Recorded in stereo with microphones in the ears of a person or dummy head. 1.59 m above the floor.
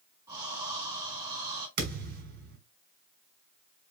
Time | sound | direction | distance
0.3 | breathing | 30° right (ahead or behind) | 4 m
1.8 | a thud | 60° right (ahead or behind) | 3 m